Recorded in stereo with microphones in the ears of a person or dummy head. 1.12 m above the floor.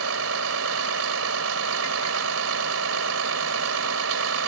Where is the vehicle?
85° right.